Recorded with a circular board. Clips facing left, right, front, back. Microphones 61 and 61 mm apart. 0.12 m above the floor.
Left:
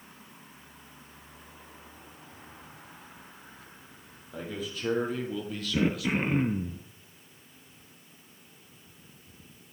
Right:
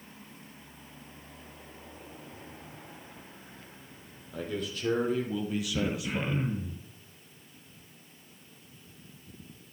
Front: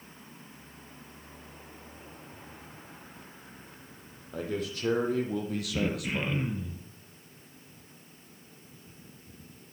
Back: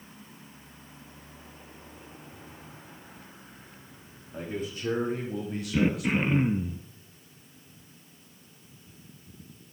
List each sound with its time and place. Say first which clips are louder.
4.3 s a man speaking: right 2 dB, front 1 dB; 10° left, 5 m; by 6.5 s 30° right, 3 m
5.7 s throat clearing: left 8 dB, back 7 dB; 125° left, 1.1 m